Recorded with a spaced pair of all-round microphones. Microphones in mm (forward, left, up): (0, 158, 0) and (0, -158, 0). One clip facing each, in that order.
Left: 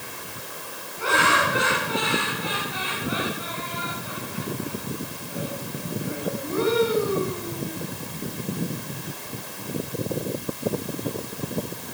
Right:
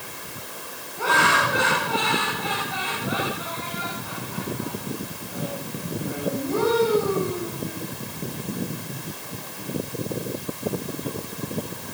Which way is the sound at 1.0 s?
55° right (ahead or behind).